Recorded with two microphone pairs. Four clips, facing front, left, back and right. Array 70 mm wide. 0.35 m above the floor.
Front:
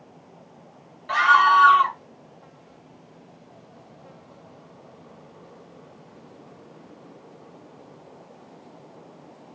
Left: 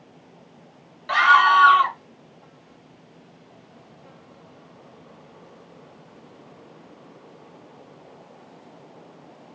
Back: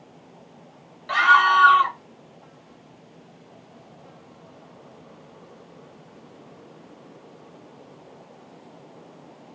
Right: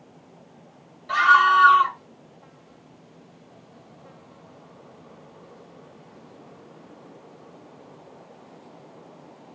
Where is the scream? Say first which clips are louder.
Left 1 dB, even; 95° left, 1.8 m.